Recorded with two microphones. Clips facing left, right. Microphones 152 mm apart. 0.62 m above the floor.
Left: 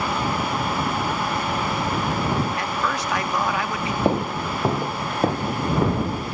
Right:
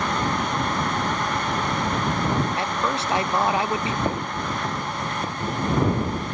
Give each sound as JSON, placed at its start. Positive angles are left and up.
{"t": 2.6, "sound": "a man speaking", "side_deg": -25}
{"t": 4.0, "sound": "footsteps", "side_deg": 25}